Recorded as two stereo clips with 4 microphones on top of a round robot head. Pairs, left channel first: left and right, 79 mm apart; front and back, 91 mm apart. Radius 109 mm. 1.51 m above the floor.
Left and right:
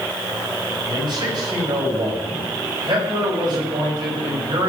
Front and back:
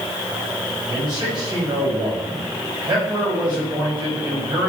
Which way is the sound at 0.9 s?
130° right.